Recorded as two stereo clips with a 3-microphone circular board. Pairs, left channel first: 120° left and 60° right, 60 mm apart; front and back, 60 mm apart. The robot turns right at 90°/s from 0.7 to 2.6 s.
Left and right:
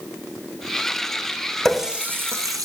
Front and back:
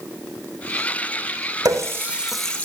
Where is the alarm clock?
No alarm clock in this recording.